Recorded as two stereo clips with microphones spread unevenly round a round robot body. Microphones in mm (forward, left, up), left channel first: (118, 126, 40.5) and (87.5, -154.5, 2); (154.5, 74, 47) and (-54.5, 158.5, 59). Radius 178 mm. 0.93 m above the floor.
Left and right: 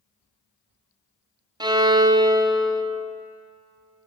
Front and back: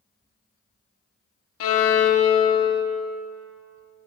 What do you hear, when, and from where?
1.6 s a violin: 20° right, 0.7 m